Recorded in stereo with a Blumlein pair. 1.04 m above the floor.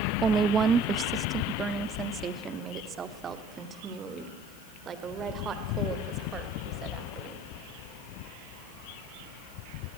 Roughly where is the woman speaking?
Ahead.